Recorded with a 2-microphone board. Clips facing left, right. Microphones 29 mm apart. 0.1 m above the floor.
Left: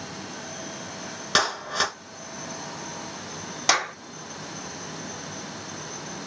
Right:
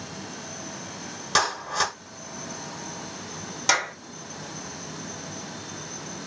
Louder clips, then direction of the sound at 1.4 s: Even; 20° left (ahead or behind).